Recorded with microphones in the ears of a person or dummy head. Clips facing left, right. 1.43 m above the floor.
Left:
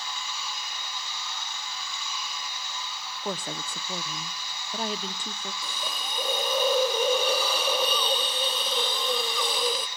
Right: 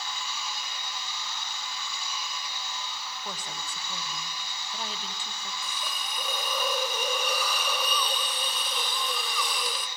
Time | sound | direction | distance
3.2 | a woman speaking | 45° left (ahead or behind) | 0.8 m
5.6 | a hiss | 25° left (ahead or behind) | 0.6 m